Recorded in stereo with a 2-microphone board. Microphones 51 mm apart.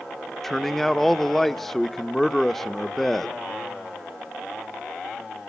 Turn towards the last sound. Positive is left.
turn(degrees=5)  # may be behind; listen again after turning